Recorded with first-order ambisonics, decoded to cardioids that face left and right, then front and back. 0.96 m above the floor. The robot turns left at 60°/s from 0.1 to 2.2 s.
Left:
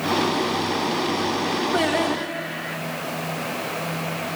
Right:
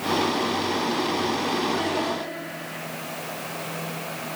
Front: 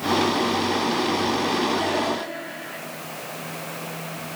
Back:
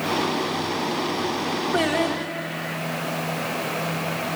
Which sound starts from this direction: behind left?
Singing, at 1.7 s.